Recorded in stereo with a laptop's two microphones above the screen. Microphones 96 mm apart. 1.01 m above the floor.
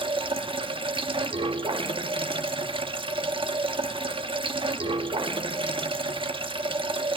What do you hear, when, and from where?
0.0 s running water: 65° right (ahead or behind), 1.5 m